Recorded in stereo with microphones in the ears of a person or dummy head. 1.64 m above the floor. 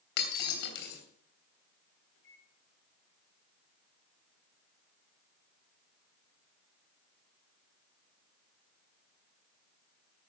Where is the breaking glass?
70° left (ahead or behind), 3 m.